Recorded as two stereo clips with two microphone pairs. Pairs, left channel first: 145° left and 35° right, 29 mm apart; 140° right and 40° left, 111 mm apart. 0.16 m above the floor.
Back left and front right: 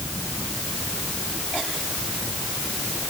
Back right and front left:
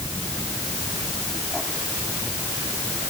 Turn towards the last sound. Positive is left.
No sound to turn to.